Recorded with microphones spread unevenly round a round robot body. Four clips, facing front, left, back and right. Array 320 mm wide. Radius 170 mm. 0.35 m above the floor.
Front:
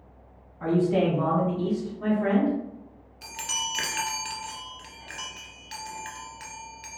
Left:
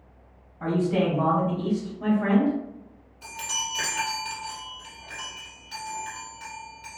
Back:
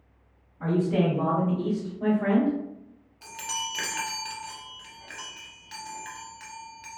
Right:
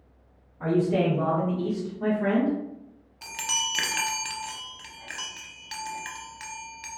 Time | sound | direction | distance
0.6 | a man speaking | 120° right | 1.6 m
3.2 | a chime | 60° right | 0.7 m